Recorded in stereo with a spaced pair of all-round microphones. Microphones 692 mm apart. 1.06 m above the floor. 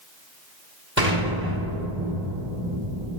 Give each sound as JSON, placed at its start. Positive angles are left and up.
{"t": 1.0, "sound": "an explosion", "side_deg": -15, "distance_m": 5.0}